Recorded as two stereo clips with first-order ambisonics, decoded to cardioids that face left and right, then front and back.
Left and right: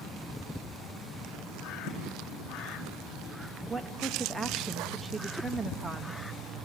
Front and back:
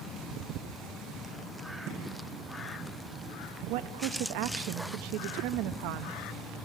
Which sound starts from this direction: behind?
A woman speaking, at 3.7 s.